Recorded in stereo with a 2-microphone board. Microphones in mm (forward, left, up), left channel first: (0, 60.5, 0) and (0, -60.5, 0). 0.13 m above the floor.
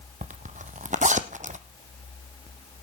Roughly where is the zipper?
Right.